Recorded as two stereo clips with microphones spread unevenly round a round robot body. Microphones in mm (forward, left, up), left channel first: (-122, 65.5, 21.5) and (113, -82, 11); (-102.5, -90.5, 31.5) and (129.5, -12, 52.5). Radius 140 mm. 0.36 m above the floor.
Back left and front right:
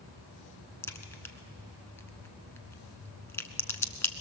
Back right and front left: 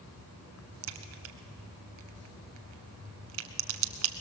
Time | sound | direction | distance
0.8 | a crack | 65° left | 0.9 m